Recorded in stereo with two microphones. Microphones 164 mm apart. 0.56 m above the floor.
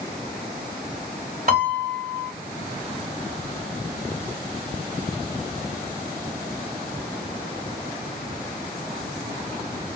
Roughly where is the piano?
Right.